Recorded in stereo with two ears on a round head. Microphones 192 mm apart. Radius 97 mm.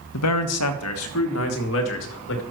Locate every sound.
0.1 s a man speaking: 80° left, 1.1 m; by 2.4 s 65° left (ahead or behind), 2.5 m